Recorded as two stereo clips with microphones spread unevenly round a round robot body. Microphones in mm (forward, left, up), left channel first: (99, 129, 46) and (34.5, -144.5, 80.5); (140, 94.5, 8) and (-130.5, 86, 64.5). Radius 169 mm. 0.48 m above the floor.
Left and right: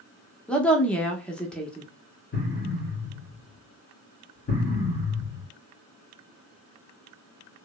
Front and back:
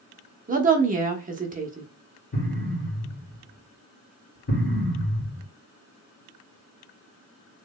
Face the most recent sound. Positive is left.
turn(degrees=35)